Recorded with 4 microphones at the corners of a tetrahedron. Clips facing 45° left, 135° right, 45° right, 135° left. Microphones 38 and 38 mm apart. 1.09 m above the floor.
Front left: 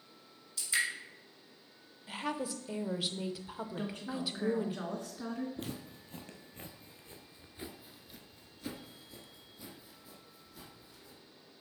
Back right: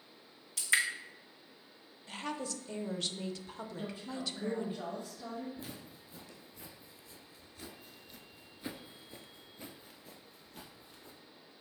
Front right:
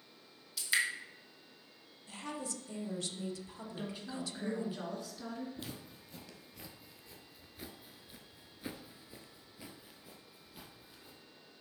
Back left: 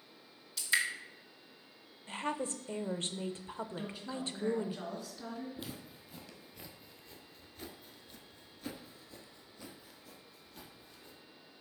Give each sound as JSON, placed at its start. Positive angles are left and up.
{"t": 0.6, "sound": "dripping", "azimuth_deg": -130, "distance_m": 1.6}
{"t": 2.1, "sound": "a woman speaking", "azimuth_deg": 120, "distance_m": 0.7}
{"t": 3.8, "sound": "a woman speaking", "azimuth_deg": 40, "distance_m": 2.5}
{"t": 5.6, "sound": "footsteps", "azimuth_deg": 50, "distance_m": 2.0}